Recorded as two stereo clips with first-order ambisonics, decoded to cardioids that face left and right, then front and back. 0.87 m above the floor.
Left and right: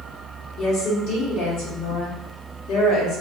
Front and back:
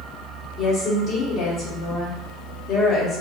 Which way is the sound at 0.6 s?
65° left.